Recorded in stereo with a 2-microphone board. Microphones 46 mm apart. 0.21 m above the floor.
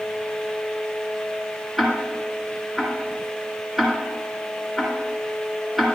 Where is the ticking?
5° right (ahead or behind), 2.5 m.